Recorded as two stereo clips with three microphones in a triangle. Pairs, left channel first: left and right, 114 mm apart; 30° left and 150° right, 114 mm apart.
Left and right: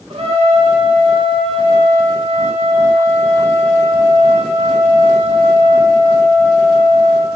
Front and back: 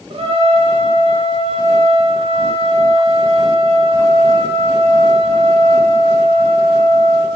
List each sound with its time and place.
0.1 s a trumpet: 120° right, 3.5 m